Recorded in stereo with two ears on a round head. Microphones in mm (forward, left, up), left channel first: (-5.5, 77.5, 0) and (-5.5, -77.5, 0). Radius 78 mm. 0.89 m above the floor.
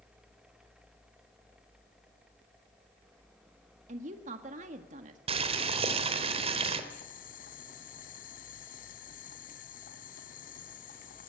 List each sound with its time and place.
3.9 s a woman speaking: 45° right (ahead or behind), 1.7 m
5.3 s boiling: 35° right (ahead or behind), 3.5 m
6.9 s boiling: 50° left (ahead or behind), 2 m